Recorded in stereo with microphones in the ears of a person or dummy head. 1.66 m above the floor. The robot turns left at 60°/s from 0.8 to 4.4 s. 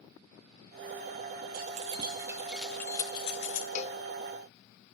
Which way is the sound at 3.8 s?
45° left (ahead or behind).